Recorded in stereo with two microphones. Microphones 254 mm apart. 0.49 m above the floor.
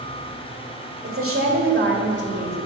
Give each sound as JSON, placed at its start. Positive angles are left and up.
{"t": 1.0, "sound": "a woman speaking", "side_deg": -60, "distance_m": 2.0}